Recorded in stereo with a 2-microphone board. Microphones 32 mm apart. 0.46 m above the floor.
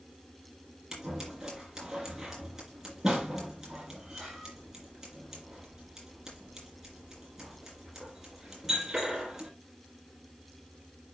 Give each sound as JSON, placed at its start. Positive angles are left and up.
{"t": 0.9, "sound": "scissors", "side_deg": -15, "distance_m": 7.0}